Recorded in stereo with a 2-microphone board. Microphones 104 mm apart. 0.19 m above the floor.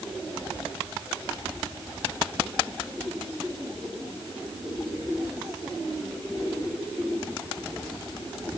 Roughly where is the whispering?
I don't hear whispering.